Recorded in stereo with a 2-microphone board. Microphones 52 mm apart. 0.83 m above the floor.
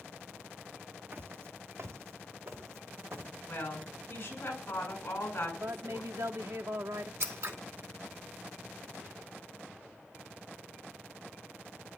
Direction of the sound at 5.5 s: 75° right (ahead or behind).